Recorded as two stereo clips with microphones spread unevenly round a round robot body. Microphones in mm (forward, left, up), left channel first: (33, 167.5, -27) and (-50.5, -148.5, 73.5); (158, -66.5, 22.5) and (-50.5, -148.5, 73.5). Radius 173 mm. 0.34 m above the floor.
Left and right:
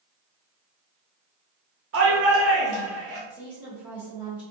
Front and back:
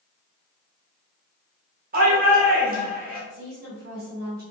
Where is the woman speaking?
155° left, 1.5 m.